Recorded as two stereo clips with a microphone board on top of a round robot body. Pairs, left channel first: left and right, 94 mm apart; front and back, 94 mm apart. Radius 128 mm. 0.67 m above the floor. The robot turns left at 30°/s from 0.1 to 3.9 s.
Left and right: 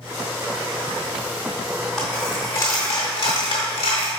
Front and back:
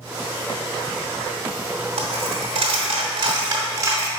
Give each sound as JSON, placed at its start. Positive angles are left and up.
{"t": 2.0, "sound": "a dropped coin", "azimuth_deg": 175, "distance_m": 0.6}